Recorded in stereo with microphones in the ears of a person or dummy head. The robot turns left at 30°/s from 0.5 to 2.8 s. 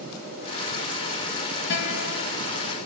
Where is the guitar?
60° left (ahead or behind), 5.5 m; by 2.3 s 80° left, 5.5 m.